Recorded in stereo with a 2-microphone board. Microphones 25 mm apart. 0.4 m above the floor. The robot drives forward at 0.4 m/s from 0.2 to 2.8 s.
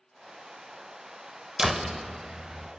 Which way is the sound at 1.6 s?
15° right (ahead or behind).